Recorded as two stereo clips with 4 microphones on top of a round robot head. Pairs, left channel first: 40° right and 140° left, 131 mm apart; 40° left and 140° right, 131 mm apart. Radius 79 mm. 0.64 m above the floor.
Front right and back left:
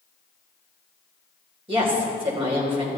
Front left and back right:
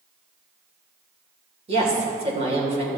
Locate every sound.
1.7 s a woman speaking: 175° right, 3 m